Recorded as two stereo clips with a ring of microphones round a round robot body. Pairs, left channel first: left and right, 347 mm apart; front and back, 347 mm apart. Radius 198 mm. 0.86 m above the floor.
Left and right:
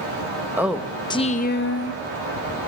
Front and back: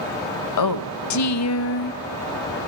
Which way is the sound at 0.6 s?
5° right.